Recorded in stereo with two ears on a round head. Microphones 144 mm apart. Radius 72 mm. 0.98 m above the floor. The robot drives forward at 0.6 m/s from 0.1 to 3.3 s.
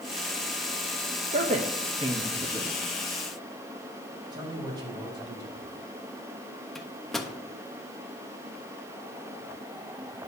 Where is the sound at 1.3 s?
45° right (ahead or behind), 0.7 m; by 2.7 s 20° right (ahead or behind), 1.4 m.